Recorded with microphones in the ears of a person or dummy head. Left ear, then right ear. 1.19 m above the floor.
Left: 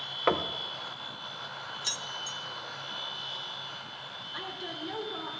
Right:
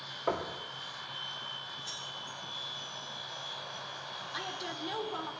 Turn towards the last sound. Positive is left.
turn(degrees=-25)  # may be behind; listen again after turning